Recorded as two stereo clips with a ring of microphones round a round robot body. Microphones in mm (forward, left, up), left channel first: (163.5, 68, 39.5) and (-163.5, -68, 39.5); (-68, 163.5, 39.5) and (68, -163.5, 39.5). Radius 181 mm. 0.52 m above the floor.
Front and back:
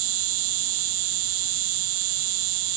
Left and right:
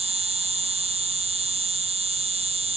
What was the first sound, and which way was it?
An insect, 140° right.